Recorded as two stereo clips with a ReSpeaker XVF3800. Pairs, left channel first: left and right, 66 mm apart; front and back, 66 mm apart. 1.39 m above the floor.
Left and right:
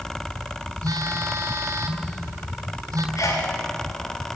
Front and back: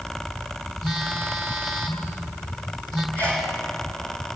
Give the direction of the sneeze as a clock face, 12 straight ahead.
10 o'clock.